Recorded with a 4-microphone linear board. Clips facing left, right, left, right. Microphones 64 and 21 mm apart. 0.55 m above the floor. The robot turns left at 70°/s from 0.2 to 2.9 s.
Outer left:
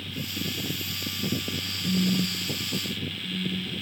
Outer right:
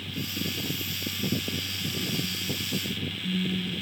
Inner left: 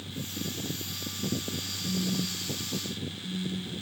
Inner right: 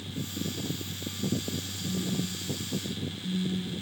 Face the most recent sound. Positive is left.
turn(degrees=-40)